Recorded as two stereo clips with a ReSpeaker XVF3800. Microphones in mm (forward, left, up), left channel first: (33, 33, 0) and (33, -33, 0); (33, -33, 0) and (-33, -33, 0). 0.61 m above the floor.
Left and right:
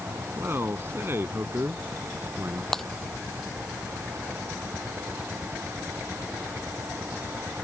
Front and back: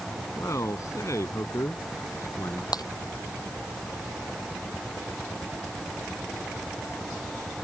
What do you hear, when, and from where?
0.4 s a man speaking: 40° right
2.7 s breaking glass: 5° left